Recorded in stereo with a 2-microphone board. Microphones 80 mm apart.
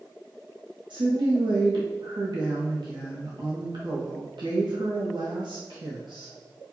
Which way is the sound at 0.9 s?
85° right.